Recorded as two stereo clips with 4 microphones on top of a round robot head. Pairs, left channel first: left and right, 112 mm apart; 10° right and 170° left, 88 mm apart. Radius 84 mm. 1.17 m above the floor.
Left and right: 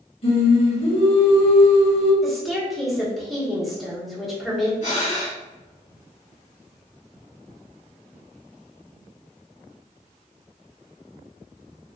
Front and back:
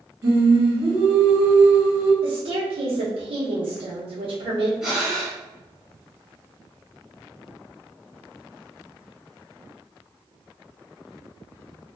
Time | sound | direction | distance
0.2 | singing | 120° left | 1.8 m
2.2 | a woman speaking | straight behind | 1.5 m
4.8 | breathing | 90° left | 1.6 m